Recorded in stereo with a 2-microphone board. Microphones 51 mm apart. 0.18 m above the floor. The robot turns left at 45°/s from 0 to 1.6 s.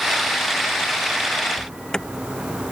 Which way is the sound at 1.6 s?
15° left (ahead or behind).